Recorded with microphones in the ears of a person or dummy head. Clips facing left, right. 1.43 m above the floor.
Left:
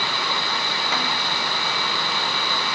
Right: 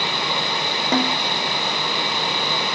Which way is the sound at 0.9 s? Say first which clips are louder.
Right 10 dB; 35° right (ahead or behind).